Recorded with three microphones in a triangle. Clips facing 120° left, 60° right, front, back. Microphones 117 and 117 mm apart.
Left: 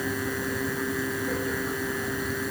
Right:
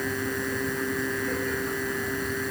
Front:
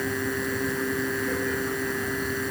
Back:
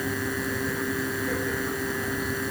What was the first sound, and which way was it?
Only background noise.